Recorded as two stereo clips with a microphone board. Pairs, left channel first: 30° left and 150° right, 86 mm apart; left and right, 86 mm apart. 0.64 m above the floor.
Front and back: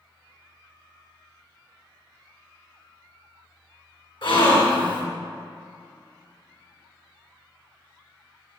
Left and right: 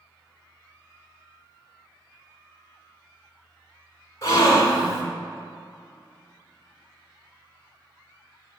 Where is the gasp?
35° left, 1.8 m.